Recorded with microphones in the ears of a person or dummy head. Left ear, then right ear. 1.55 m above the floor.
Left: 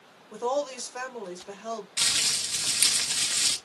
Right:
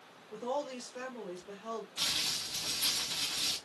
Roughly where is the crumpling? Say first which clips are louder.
Left 8 dB; left.